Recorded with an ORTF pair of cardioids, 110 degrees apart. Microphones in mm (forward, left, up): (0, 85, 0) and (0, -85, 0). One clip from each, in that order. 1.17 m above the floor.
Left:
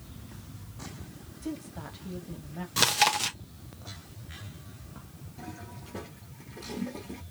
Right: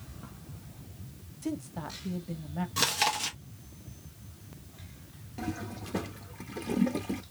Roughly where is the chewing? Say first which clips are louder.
Left 4 dB; ahead left.